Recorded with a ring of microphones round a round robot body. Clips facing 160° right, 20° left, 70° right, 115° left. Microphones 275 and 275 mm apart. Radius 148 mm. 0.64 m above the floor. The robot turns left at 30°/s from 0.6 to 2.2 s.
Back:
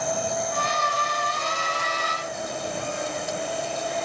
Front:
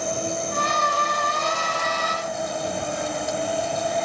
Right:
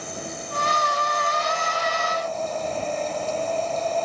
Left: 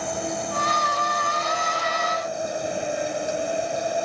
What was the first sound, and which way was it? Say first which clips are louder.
An insect: front 1 dB, left 6 dB; 85° left.